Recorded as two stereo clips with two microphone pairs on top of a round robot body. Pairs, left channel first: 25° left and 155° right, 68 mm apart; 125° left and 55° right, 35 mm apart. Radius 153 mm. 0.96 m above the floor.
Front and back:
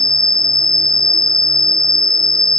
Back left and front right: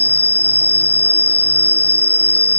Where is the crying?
I don't hear crying.